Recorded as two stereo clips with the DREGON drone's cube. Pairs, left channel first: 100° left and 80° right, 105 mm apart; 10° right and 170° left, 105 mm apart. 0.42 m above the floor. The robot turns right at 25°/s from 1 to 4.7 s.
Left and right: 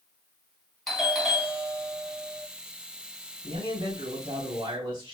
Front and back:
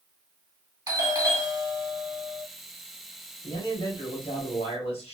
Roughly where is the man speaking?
Ahead right.